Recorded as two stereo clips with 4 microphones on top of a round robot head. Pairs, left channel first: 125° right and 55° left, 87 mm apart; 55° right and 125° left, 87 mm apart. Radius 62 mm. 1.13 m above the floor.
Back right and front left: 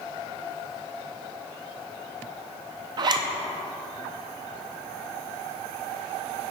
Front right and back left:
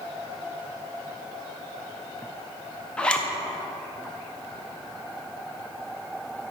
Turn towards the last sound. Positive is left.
turn(degrees=20)